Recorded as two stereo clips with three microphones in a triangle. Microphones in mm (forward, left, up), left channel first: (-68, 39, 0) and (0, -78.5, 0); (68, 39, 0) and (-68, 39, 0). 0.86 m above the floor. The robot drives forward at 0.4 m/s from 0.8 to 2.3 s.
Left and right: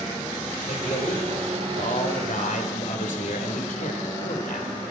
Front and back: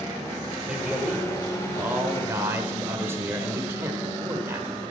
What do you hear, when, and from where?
0.7 s a man speaking: 95° left, 3 m; by 4.7 s 110° left, 3 m